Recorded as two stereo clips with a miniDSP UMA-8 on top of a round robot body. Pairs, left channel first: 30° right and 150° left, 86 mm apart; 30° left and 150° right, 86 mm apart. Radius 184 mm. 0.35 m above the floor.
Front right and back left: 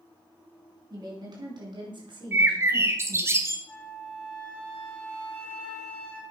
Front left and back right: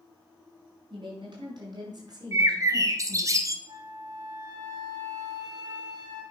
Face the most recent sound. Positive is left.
turn(degrees=-110)